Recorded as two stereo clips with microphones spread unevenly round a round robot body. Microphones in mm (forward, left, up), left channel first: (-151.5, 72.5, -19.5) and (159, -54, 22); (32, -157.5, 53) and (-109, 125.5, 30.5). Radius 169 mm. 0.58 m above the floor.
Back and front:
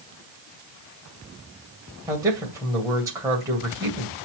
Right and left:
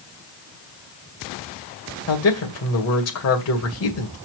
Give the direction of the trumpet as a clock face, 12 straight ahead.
I don't hear a trumpet.